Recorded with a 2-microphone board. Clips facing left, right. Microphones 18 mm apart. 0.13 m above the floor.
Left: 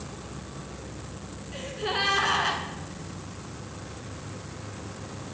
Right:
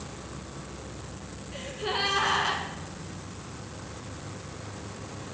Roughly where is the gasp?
Centre.